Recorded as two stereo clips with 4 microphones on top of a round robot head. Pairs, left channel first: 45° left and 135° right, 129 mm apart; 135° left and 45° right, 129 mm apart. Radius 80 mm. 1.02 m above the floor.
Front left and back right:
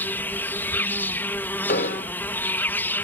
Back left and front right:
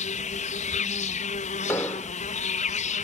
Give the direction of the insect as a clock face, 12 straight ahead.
8 o'clock.